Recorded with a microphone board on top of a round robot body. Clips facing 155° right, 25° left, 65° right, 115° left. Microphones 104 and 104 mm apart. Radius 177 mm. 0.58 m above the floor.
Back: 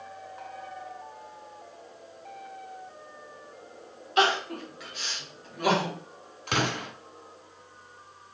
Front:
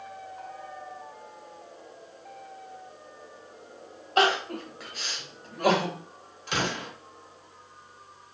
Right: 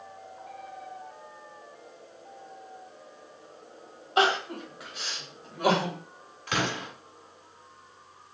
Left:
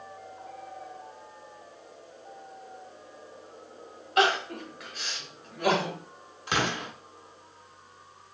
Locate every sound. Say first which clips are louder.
4.2 s crying: front 1 dB, even; 10° right, 1.7 m
6.5 s an explosion: back 1 dB, left 1 dB; straight behind, 1.7 m